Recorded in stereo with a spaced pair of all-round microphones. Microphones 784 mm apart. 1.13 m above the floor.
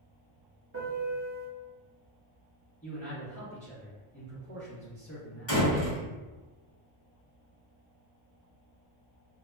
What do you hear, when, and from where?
0.7 s a piano: 20° right (ahead or behind), 0.5 m
2.8 s a man speaking: 15° left (ahead or behind), 1.4 m
5.5 s a door slam: 35° left (ahead or behind), 1.5 m